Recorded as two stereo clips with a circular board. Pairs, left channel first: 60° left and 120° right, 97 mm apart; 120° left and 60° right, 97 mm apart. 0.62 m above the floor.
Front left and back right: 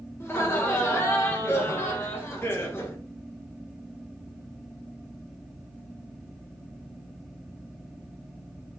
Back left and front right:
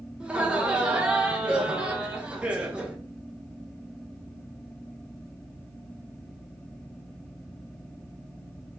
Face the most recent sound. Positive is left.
turn(degrees=15)